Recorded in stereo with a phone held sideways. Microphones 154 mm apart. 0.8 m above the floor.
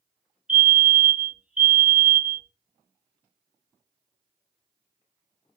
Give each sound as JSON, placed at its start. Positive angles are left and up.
{"t": 0.5, "sound": "a fire alarm", "side_deg": -5, "distance_m": 1.5}